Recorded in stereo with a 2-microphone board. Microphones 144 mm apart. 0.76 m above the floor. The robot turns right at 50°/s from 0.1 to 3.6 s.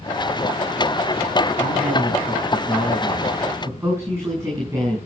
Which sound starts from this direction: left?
A man speaking, at 1.6 s.